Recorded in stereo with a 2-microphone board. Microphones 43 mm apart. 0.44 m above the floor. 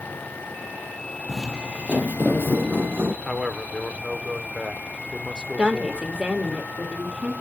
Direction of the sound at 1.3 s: Centre (ahead or behind).